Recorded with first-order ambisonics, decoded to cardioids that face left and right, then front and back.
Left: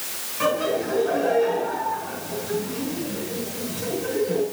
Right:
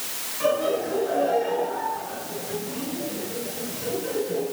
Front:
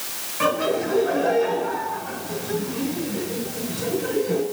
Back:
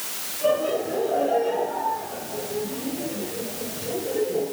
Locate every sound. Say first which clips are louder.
0.4 s laughter: even, front 1 dB; 25° left, 8 m